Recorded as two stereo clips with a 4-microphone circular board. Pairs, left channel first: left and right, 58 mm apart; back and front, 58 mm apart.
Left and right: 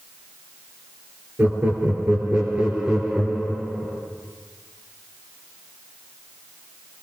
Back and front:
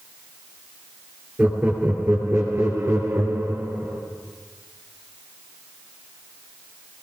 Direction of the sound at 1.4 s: 50° right.